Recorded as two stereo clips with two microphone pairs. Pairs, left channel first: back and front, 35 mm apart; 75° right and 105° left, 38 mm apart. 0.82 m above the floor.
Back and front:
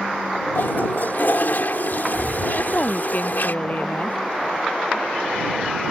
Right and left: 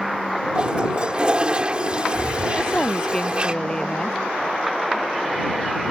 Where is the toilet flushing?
165° left.